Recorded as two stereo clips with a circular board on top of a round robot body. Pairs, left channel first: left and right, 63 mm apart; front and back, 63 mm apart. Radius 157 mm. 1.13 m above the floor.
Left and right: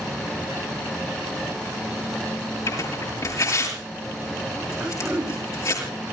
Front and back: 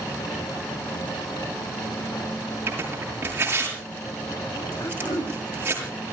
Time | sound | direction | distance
2.7 | tearing paper | 125° left | 7.5 m
4.8 | throat clearing | 15° right | 7.5 m